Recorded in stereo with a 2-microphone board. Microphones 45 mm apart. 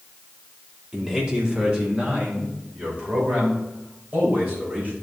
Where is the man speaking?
20° right (ahead or behind), 1.9 m; by 4.9 s 40° right (ahead or behind), 5 m.